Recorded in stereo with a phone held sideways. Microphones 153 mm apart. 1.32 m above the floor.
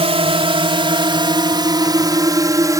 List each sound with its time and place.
0.0 s a drone: 40° right (ahead or behind); by 2.8 s 20° right (ahead or behind)